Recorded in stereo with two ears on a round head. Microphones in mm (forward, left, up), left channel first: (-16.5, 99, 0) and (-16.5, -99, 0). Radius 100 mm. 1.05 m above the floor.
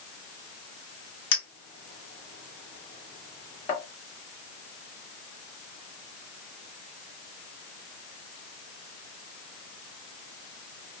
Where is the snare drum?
I don't hear a snare drum.